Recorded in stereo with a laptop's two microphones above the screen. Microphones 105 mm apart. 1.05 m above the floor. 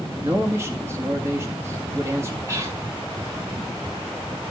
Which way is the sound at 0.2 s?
25° right (ahead or behind).